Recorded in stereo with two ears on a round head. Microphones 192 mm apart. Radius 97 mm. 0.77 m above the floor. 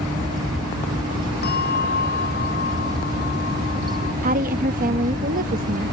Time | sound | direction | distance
1.4 | a bell | 50° left (ahead or behind) | ?
4.2 | a woman speaking | 40° right (ahead or behind) | ?